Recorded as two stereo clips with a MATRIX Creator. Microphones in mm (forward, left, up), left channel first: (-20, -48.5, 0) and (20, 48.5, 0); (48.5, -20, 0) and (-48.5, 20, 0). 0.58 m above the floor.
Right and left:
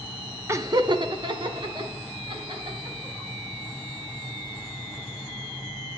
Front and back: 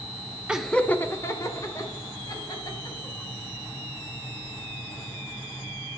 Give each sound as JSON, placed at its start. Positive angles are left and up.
{"t": 0.5, "sound": "laughter", "azimuth_deg": 90, "distance_m": 0.7}